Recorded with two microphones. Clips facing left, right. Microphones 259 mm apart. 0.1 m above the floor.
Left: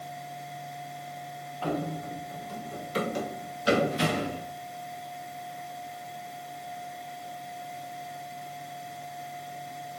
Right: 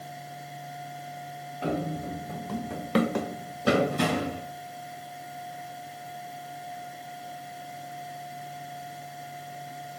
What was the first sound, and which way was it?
Running footsteps, 20° right (ahead or behind).